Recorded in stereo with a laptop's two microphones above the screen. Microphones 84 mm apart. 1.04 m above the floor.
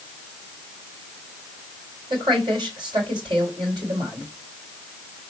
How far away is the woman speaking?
About 3.5 m.